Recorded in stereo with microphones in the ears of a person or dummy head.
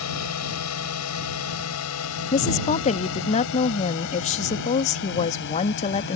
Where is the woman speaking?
30° left (ahead or behind).